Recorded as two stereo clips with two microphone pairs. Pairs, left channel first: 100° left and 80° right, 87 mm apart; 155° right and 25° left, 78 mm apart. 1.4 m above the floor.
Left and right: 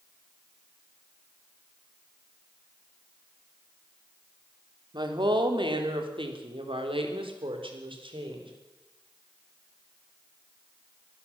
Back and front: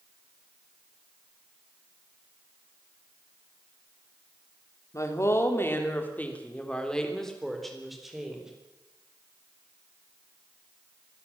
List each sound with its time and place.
4.9 s a woman speaking: 110° right, 3 m; by 8.5 s 60° right, 4.5 m